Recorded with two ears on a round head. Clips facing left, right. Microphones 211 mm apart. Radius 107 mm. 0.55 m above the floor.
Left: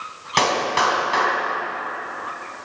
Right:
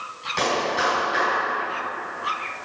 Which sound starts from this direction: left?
A clap, at 0.4 s.